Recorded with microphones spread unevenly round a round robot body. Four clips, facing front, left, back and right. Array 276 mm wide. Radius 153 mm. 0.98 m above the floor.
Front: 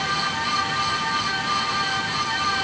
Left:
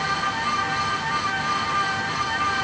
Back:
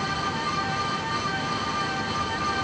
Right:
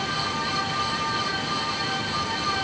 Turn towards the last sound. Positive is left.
No sound to turn to.